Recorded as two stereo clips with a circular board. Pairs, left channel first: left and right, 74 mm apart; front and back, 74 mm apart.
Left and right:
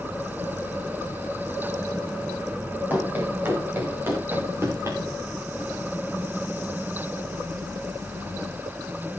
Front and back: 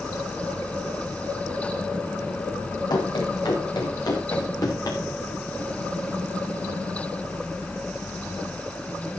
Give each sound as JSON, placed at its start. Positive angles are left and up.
{"t": 2.9, "sound": "running footsteps", "azimuth_deg": -25, "distance_m": 8.0}